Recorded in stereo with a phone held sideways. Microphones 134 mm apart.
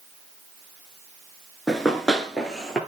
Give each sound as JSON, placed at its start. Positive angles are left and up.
{"t": 1.7, "sound": "running footsteps", "side_deg": 0, "distance_m": 1.0}